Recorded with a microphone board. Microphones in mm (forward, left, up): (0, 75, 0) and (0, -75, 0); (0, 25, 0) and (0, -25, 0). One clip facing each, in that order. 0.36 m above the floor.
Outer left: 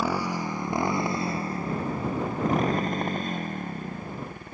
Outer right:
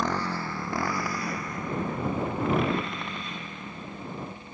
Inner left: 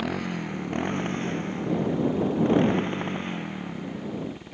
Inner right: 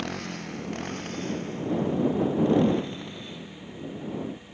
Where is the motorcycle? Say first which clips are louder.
Outer left 2 dB, inner left 4 dB; 10° left (ahead or behind); by 4.5 s 55° left (ahead or behind).